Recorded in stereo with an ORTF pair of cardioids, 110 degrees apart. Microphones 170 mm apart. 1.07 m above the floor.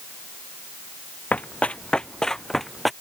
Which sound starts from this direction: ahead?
Running footsteps, at 1.3 s.